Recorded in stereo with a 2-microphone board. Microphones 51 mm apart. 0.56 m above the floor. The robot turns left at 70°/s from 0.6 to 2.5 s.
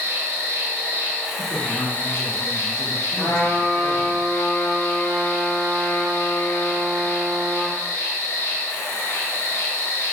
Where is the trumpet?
70° left (ahead or behind), 1.7 m.